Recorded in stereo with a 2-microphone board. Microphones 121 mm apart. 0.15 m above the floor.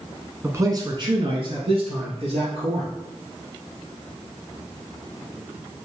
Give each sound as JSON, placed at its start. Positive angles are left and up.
{"t": 0.4, "sound": "a man speaking", "side_deg": -20, "distance_m": 1.1}